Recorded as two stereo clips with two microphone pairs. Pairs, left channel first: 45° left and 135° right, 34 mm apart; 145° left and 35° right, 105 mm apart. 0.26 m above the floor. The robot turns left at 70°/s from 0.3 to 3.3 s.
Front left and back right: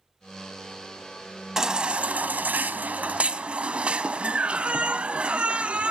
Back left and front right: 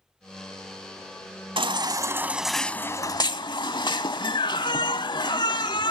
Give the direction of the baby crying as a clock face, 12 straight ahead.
2 o'clock.